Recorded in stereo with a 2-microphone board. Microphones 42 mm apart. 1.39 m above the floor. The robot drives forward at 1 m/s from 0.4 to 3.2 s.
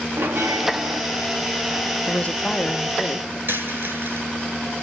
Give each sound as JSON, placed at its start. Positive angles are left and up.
{"t": 0.2, "sound": "a bell", "side_deg": -80, "distance_m": 3.5}
{"t": 2.1, "sound": "a woman speaking", "side_deg": 35, "distance_m": 1.0}
{"t": 3.5, "sound": "a dropped coin", "side_deg": -65, "distance_m": 9.0}